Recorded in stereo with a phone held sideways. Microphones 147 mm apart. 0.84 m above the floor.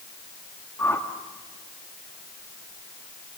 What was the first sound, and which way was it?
A whoosh, 20° left (ahead or behind).